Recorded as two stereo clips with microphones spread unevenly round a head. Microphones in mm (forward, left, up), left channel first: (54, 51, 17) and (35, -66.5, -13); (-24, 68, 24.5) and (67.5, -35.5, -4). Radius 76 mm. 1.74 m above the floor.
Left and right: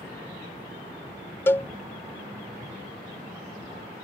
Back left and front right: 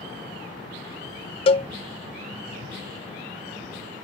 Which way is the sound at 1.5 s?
135° left.